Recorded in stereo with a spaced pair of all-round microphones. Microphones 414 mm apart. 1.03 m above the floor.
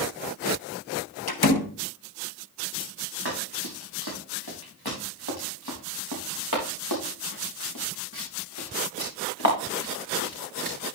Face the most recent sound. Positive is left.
turn(degrees=25)  # may be behind; listen again after turning